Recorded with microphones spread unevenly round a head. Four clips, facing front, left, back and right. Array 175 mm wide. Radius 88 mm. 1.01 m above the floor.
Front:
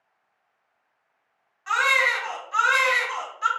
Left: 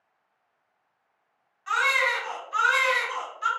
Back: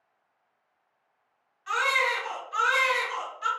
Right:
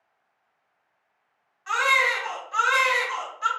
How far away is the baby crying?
About 2 m.